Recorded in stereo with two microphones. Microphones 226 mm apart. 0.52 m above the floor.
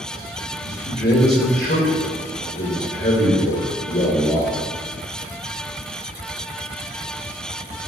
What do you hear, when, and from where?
0.6 s a man speaking: 45° left (ahead or behind), 1.9 m